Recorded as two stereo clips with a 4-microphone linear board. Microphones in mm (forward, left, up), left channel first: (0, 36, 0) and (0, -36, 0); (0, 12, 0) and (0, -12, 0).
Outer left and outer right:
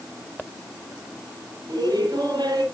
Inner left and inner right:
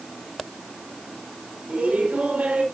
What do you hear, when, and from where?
1.7 s laughter: 80° right, 4 m